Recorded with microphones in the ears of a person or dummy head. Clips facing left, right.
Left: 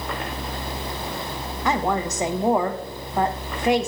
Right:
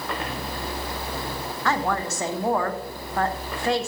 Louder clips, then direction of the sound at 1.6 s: Left 2 dB; 20° left (ahead or behind).